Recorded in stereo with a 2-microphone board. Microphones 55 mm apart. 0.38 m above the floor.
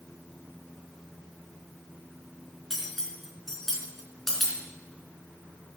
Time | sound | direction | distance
2.7 | cutlery clinking | 10° left (ahead or behind) | 3 m